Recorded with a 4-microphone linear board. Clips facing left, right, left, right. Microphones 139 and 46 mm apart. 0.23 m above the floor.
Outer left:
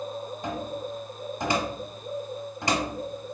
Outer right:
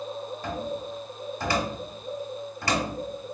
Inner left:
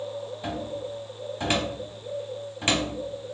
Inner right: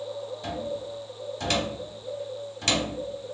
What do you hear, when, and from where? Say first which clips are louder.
0.4 s a cupboard door: outer right 1 dB, even; 20° left (ahead or behind), 0.8 m